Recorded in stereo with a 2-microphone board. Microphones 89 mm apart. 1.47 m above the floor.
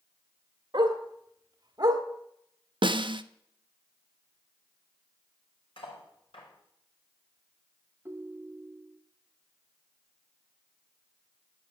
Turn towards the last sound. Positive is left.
turn(degrees=-30)  # may be behind; listen again after turning